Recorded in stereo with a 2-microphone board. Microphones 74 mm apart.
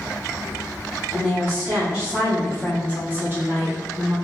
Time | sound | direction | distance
1.1 | a woman speaking | 5° right (ahead or behind) | 1.4 m